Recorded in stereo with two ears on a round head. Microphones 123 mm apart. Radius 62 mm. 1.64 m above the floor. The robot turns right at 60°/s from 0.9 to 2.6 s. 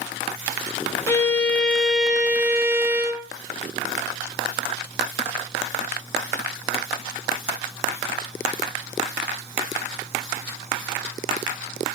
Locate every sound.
1.1 s a violin: 20° left (ahead or behind), 1.0 m; by 3.3 s 15° right (ahead or behind), 1.0 m